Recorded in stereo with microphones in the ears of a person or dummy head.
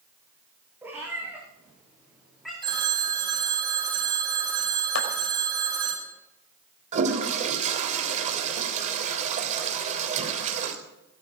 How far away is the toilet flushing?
About 3 m.